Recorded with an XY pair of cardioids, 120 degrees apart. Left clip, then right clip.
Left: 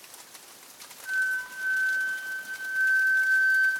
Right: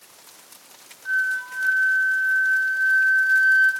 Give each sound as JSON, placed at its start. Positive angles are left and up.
{"t": 1.1, "sound": "a flute", "azimuth_deg": -35, "distance_m": 1.0}